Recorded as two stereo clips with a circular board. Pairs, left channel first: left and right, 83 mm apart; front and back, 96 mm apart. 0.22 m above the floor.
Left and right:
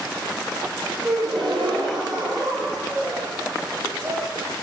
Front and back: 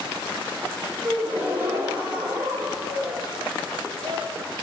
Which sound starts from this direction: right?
A gasp, at 1.0 s.